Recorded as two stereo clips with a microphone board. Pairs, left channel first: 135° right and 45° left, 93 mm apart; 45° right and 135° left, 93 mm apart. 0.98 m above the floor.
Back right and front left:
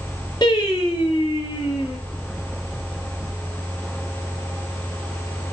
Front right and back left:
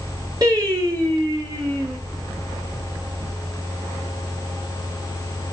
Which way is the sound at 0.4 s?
175° right.